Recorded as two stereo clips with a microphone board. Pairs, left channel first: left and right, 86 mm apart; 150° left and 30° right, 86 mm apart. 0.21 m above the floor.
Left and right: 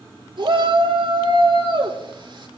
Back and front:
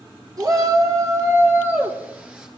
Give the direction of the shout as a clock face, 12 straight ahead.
2 o'clock.